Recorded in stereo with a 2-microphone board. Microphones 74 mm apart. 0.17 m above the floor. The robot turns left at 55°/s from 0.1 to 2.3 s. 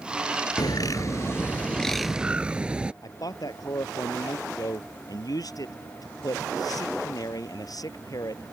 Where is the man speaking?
55° left (ahead or behind).